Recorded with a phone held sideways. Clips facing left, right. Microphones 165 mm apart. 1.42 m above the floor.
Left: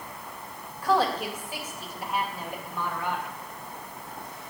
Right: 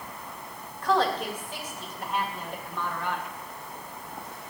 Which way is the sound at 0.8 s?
10° left (ahead or behind).